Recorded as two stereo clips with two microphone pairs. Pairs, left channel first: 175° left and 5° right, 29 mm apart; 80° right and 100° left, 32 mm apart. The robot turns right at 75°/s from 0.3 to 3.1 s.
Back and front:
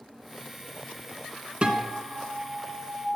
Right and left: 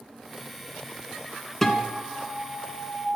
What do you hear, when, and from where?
1.6 s a guitar: 5° right, 1.5 m; by 3.1 s 105° left, 1.5 m